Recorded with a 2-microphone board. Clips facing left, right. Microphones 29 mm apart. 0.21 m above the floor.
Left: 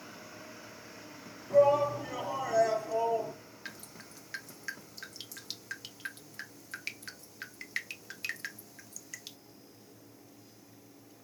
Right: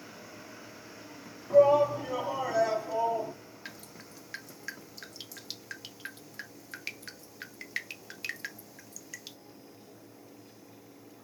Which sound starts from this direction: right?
A shout, at 1.5 s.